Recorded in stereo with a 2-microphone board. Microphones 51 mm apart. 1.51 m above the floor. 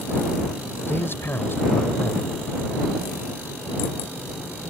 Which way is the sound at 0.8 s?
50° left (ahead or behind).